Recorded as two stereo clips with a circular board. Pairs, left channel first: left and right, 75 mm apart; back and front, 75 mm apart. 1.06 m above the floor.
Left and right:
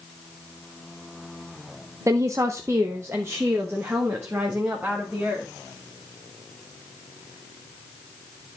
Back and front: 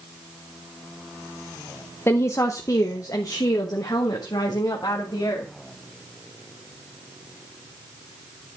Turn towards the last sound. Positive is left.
turn(degrees=-155)